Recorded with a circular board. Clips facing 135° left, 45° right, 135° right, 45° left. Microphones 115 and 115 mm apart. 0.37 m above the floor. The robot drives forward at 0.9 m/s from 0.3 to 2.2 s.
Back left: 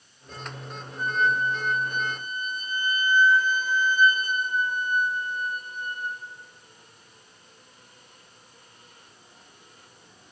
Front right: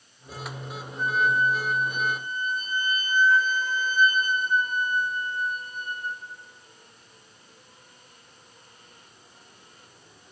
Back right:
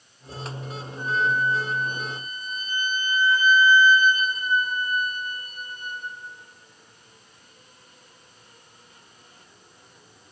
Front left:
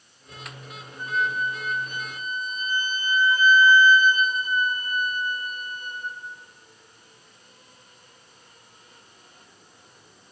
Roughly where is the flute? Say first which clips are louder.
Front right 1 dB, back right 3 dB; ahead left.